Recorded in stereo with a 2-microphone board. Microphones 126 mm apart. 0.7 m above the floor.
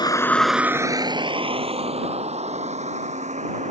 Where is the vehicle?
35° left (ahead or behind); by 3.7 s 65° right (ahead or behind).